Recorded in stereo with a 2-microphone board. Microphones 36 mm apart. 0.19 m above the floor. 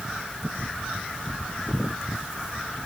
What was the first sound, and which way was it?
Only background noise.